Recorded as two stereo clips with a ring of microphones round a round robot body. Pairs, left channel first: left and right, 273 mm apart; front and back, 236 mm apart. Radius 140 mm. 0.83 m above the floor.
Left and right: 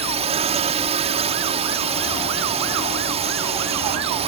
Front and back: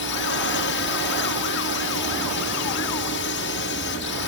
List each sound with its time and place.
0.0 s a drone: 25° right